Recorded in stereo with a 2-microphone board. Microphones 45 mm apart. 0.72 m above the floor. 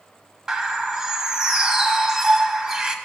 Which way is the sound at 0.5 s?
15° right (ahead or behind).